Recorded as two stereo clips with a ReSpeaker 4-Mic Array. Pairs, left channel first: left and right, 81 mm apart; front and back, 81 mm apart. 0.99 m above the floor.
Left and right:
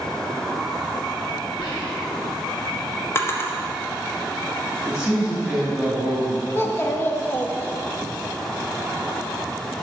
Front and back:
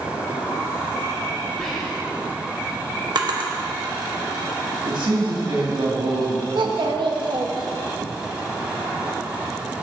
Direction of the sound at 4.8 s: 175° right.